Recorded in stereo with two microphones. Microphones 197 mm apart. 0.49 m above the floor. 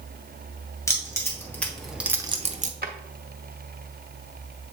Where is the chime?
I don't hear a chime.